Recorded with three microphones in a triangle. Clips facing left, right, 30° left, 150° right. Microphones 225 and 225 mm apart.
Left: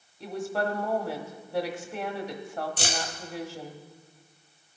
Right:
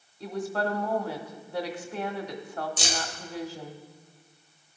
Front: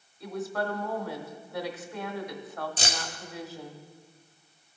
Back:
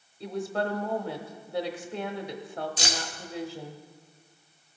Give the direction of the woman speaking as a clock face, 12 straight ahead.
6 o'clock.